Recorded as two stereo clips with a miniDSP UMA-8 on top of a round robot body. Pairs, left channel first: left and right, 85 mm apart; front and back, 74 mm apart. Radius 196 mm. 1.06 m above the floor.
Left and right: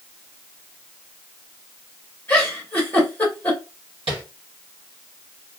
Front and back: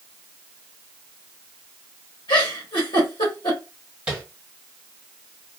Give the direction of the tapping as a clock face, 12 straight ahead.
4 o'clock.